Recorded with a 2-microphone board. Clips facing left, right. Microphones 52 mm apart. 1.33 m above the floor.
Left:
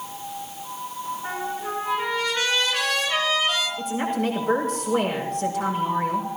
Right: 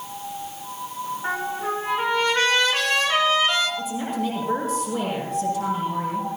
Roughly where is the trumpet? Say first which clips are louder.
Right 5 dB; right.